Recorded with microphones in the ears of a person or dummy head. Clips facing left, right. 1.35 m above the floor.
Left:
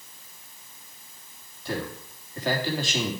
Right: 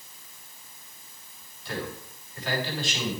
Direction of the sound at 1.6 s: 40° left (ahead or behind).